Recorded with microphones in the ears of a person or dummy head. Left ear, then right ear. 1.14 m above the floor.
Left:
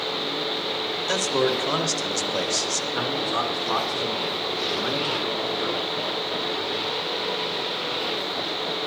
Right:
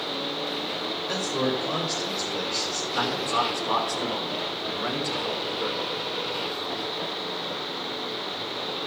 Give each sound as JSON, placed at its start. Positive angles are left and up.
{"t": 1.1, "sound": "a man speaking", "side_deg": 60, "distance_m": 2.5}
{"t": 2.9, "sound": "a man speaking", "side_deg": -10, "distance_m": 4.5}